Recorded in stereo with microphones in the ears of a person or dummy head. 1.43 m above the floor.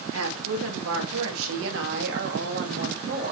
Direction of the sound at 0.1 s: 85° right.